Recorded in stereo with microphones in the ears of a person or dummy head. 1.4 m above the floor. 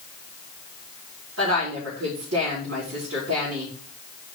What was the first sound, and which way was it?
A woman speaking, 80° right.